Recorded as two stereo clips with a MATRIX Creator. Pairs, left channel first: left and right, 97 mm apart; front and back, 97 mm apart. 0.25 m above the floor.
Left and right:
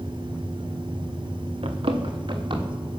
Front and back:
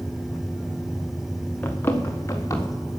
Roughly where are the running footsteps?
Right.